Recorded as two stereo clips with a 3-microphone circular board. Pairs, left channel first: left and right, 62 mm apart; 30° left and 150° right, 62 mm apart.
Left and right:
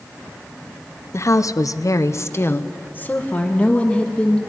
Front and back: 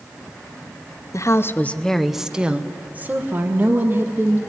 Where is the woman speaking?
50° left, 0.8 m; by 4.4 s 160° left, 2.5 m.